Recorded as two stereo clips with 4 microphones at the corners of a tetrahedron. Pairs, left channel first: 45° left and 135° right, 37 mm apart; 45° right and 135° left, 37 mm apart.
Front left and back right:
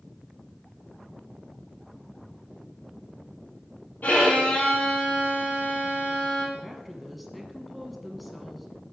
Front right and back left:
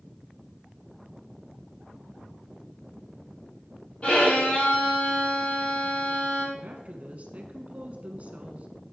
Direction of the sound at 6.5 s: 135° left.